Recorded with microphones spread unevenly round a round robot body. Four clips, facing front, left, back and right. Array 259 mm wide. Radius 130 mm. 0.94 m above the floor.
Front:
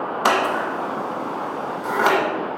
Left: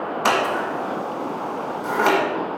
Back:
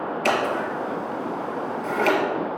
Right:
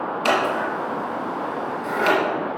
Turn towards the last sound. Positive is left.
turn(degrees=15)